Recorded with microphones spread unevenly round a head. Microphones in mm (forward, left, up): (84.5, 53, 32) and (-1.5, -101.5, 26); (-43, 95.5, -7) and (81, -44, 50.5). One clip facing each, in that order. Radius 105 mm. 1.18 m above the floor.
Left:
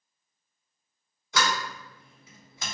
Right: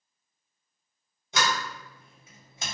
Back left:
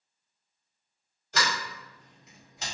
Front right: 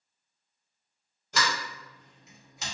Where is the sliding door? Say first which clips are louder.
Left 1 dB, even; 55° right, 1.4 m.